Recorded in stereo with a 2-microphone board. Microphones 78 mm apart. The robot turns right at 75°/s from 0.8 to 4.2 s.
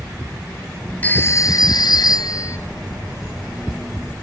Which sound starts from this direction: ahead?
A phone ringing, at 1.0 s.